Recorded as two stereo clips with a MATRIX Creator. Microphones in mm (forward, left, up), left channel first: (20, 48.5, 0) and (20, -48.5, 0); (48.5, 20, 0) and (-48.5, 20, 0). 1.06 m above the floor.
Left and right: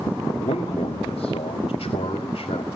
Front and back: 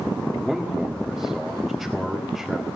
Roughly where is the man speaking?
Left.